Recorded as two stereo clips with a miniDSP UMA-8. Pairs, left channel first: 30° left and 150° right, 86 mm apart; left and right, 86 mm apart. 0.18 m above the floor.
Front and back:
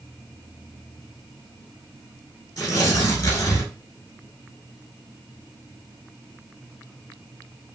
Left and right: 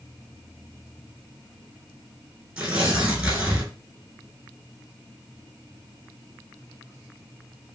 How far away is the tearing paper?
About 1.9 m.